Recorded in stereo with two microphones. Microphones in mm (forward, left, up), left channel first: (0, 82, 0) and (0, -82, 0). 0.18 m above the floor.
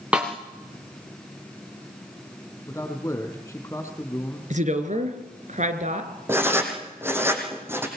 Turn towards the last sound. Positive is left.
turn(degrees=-15)  # may be behind; listen again after turning